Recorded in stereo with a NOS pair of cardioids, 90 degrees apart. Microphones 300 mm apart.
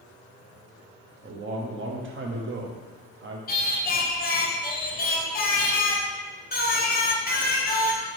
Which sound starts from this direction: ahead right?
A man speaking, at 1.2 s.